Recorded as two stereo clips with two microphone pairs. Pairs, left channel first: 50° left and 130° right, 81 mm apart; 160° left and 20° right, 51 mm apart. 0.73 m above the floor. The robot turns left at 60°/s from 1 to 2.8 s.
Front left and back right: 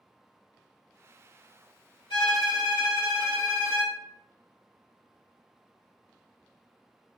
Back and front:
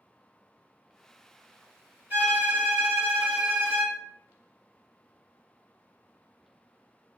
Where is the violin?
35° left, 1.4 m; by 4.0 s 5° right, 1.4 m.